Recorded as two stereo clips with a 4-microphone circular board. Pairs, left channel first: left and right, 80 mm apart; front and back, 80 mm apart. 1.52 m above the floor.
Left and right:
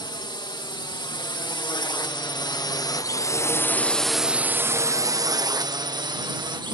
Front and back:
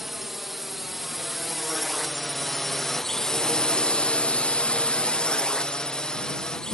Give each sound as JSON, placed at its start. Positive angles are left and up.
{"t": 0.0, "sound": "a drone", "azimuth_deg": 90}